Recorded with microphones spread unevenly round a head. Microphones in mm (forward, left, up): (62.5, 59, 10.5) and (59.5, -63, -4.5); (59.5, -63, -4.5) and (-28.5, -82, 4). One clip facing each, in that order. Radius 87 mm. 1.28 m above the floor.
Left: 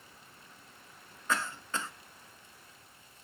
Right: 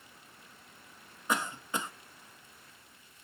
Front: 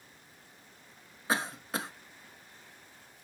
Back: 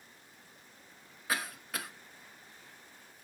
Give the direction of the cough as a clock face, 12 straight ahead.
1 o'clock.